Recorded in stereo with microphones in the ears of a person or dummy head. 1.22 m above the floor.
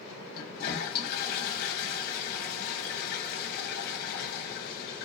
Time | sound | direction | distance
0.3 | a toilet flushing | 50° left (ahead or behind) | 0.9 m